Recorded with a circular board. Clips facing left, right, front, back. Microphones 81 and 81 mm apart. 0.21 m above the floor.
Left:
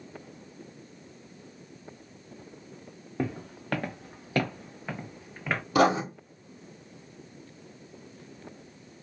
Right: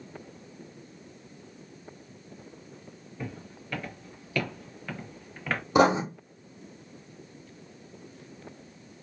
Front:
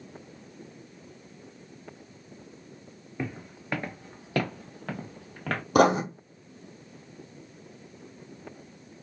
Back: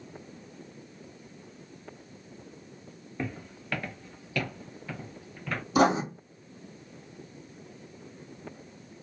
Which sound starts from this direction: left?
Footsteps, at 3.2 s.